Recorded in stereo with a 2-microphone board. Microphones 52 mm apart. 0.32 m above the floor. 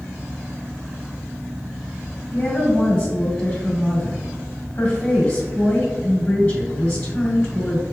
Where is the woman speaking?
40° left (ahead or behind), 2.0 m.